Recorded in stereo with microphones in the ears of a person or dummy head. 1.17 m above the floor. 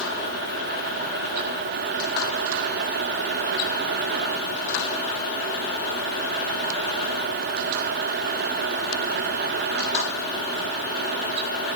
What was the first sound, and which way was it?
Only background noise.